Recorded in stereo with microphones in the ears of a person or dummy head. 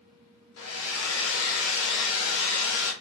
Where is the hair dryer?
70° left (ahead or behind), 1.3 m.